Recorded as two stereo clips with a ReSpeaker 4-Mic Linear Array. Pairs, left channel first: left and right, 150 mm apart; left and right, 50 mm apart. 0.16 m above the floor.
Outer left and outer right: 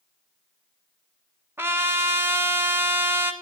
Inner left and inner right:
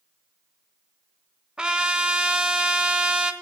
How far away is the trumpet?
About 0.7 m.